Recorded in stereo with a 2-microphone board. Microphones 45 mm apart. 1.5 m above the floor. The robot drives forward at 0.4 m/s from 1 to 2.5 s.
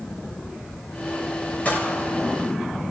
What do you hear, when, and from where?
1.6 s a gunshot: 35° left (ahead or behind), 3 m; by 2.2 s 40° left (ahead or behind), 2.5 m